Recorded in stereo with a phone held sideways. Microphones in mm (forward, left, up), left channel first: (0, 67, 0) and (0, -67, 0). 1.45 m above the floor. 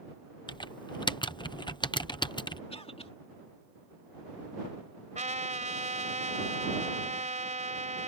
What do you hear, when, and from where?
0.5 s typing on a keyboard: 40° left (ahead or behind)
2.7 s a cough: 50° left (ahead or behind)
5.2 s a trumpet: 75° right (ahead or behind)